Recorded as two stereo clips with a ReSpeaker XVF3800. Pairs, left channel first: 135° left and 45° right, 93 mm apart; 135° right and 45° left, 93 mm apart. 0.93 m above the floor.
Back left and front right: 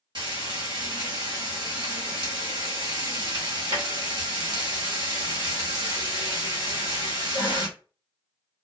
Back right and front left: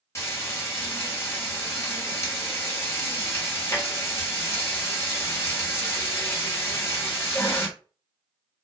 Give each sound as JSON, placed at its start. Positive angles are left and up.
{"t": 0.1, "sound": "frying", "azimuth_deg": -80, "distance_m": 1.2}